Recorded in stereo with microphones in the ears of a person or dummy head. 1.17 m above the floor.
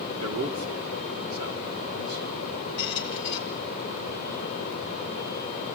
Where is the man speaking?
80° right, 2.5 m; by 2.5 s 75° right (ahead or behind), 4.5 m.